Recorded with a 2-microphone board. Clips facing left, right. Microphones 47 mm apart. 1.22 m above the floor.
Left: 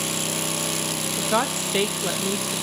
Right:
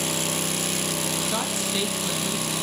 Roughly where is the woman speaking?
Left.